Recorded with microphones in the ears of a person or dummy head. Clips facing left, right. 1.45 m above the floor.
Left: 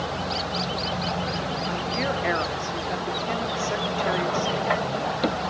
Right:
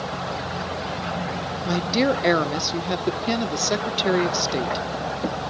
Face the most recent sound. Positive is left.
turn(degrees=-55)  # may be behind; listen again after turning